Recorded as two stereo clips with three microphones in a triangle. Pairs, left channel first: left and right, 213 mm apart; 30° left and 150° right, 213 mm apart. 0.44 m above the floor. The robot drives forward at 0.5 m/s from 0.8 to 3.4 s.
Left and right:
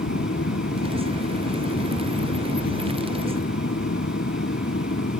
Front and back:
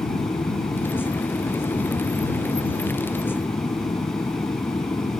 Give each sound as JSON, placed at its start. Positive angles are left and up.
{"t": 0.0, "sound": "an aircraft", "azimuth_deg": 100}